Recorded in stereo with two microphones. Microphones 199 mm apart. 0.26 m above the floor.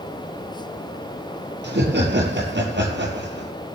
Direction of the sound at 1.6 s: 75° right (ahead or behind).